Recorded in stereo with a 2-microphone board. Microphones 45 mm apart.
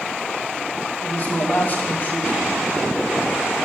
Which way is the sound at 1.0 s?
45° left (ahead or behind).